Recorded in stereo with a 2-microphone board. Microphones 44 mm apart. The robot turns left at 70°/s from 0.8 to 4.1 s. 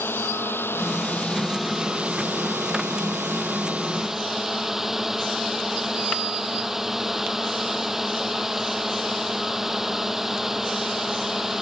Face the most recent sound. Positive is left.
turn(degrees=-175)